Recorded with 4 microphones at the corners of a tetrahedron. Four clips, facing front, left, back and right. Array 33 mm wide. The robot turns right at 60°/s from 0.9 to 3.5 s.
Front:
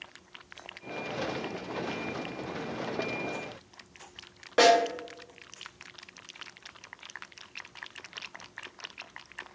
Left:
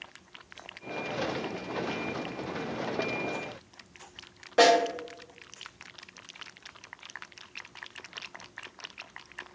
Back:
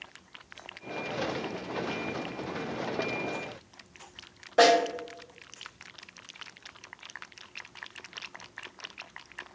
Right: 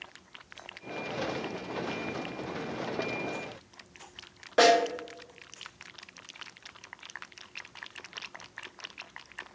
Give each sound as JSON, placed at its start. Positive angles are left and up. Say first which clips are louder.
{"t": 4.6, "sound": "a snare drum", "louder": "left 1 dB, even", "azimuth_deg": -20, "distance_m": 1.4}